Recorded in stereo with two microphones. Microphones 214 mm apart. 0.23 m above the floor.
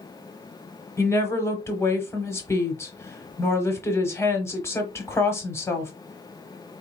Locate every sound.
1.0 s a woman speaking: 15° left (ahead or behind), 1.0 m